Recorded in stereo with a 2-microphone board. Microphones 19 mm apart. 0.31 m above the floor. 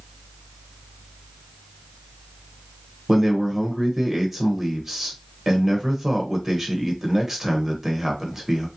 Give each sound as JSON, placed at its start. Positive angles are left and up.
{"t": 3.1, "sound": "a man speaking", "side_deg": -20, "distance_m": 0.9}